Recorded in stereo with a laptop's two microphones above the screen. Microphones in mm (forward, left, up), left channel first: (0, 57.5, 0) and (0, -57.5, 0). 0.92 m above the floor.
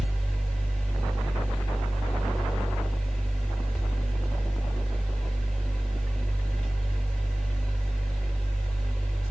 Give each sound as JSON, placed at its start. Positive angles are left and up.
{"t": 0.0, "sound": "a fan", "side_deg": 5, "distance_m": 1.2}